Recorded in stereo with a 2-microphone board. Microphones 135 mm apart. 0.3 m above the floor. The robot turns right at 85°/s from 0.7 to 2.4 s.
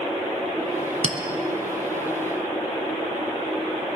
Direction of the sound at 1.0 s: 55° right (ahead or behind).